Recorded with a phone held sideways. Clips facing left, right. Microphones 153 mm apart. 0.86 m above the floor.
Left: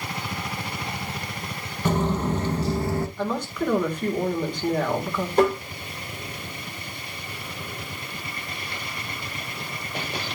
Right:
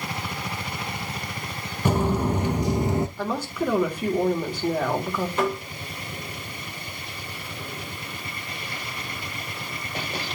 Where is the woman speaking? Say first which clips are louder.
Even; 5° right (ahead or behind), 3 m.